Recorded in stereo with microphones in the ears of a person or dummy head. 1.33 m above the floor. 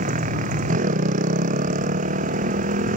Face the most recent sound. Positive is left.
turn(degrees=-45)  # may be behind; listen again after turning